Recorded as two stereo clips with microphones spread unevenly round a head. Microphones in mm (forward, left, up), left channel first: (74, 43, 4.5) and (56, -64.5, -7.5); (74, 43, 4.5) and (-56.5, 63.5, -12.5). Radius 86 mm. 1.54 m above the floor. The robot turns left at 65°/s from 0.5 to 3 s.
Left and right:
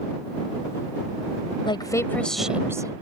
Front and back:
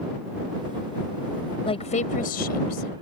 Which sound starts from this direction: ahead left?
A woman speaking, at 1.6 s.